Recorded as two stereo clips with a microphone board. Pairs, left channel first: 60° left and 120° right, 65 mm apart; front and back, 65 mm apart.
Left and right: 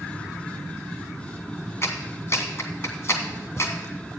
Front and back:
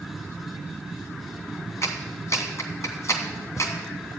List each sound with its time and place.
1.8 s a clap: 25° left, 1.8 m